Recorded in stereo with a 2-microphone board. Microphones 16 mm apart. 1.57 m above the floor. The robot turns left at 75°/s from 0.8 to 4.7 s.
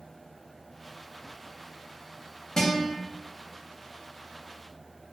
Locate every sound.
2.6 s a guitar: 35° left (ahead or behind), 0.6 m; by 2.9 s 65° left (ahead or behind), 0.6 m